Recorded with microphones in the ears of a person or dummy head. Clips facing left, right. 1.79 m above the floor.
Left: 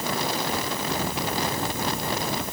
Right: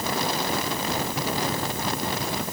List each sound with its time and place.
Only background noise.